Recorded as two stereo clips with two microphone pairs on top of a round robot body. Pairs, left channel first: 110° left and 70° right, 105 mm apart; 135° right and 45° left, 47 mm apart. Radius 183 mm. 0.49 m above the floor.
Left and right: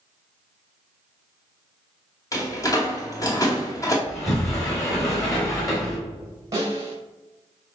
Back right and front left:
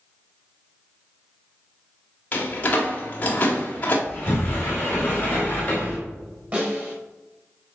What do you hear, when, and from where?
2.3 s a door slam: 170° left, 1.9 m
4.1 s a sliding door: 175° left, 4 m
6.5 s a snare drum: 10° right, 3.5 m